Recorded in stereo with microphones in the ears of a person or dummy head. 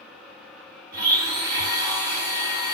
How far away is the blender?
About 1.7 m.